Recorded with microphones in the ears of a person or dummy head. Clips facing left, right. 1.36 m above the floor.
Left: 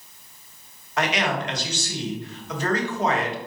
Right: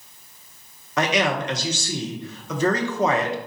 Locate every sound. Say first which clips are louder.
1.0 s a man speaking: right 3 dB; 65° right (ahead or behind), 0.8 m